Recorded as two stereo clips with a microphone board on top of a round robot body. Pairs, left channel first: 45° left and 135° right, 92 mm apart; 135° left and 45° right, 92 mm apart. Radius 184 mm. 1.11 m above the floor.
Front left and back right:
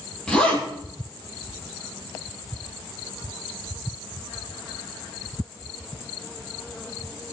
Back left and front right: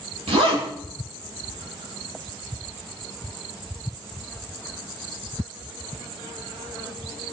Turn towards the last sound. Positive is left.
turn(degrees=-35)